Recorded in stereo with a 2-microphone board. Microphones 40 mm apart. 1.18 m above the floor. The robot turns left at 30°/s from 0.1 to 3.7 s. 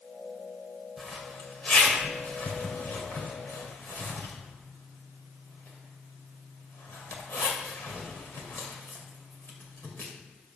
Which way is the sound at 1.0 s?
Centre (ahead or behind).